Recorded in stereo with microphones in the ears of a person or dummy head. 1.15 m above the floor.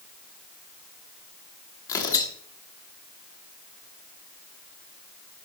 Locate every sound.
1.9 s tearing paper: 20° left (ahead or behind), 1.1 m